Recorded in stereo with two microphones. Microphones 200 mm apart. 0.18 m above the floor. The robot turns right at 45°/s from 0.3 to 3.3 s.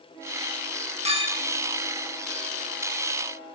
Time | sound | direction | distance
1.1 | a clink | 30° right (ahead or behind) | 2 m